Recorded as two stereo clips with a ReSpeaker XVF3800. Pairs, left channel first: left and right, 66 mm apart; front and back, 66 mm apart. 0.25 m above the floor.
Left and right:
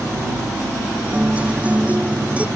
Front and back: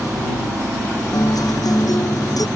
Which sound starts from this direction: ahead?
A guitar, at 1.1 s.